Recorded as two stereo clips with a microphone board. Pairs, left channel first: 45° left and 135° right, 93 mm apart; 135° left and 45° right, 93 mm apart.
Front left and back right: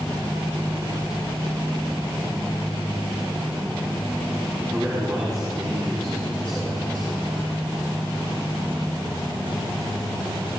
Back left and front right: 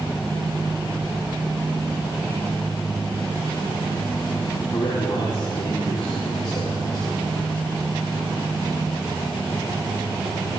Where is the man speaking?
170° left, 4 m.